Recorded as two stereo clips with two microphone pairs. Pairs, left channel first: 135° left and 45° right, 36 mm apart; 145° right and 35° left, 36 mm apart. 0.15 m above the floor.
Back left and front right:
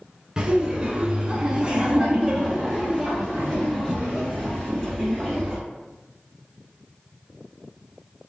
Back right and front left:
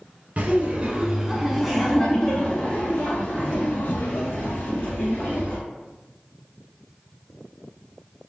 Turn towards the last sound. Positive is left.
turn(degrees=-135)